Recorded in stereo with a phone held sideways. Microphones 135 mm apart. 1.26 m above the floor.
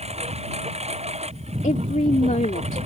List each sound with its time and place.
0.0 s a lawn mower: 50° right (ahead or behind); by 2.9 s 55° right (ahead or behind)
1.6 s a woman speaking: 70° left (ahead or behind)